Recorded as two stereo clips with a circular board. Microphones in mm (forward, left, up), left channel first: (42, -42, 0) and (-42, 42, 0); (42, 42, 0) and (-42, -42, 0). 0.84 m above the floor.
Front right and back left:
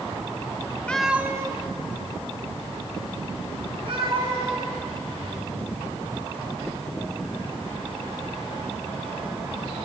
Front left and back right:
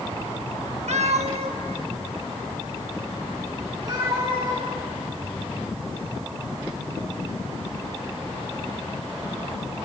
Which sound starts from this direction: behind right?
A cat meowing, at 0.9 s.